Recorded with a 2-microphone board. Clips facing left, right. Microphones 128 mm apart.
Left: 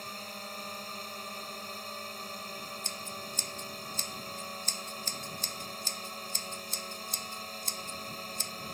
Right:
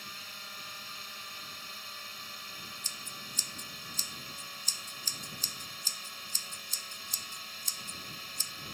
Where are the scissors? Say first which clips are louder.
Left 7 dB; 60° left (ahead or behind).